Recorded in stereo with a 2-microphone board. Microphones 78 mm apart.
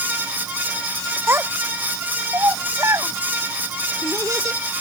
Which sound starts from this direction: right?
A child speaking, at 1.3 s.